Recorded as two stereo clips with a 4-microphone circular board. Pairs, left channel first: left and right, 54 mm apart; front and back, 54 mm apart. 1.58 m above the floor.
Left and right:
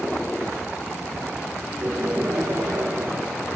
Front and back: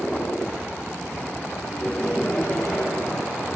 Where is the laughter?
60° right, 5 m.